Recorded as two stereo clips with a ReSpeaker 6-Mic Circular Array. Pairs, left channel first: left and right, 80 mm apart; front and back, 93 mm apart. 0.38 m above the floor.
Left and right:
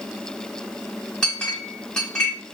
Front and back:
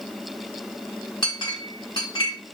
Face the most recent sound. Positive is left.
turn(degrees=10)